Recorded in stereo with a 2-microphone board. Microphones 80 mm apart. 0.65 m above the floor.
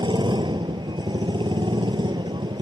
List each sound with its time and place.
0.0 s a motorcycle: 75° right (ahead or behind)